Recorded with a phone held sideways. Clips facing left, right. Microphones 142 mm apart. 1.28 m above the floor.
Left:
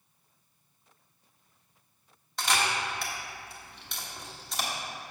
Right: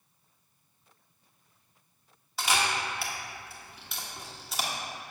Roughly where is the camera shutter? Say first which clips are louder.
Even; centre.